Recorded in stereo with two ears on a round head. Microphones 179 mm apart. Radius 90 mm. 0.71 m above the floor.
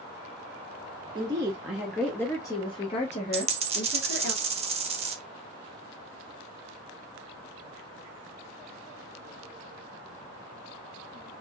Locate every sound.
1.1 s a woman speaking: 25° right (ahead or behind), 1.0 m; by 4.3 s 50° left (ahead or behind), 1.7 m
3.3 s a dropped coin: 30° right (ahead or behind), 1.1 m